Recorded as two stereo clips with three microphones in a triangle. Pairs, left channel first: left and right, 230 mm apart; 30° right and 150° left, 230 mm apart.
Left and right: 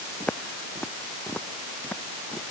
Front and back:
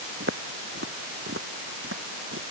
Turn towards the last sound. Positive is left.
turn(degrees=175)